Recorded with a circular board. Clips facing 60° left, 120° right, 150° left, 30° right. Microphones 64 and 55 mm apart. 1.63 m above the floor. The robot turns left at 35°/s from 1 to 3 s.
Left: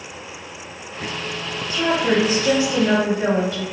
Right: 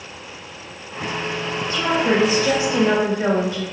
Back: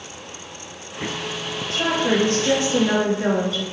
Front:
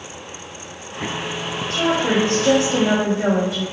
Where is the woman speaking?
15° left, 1.3 m; by 3.6 s 30° right, 1.3 m.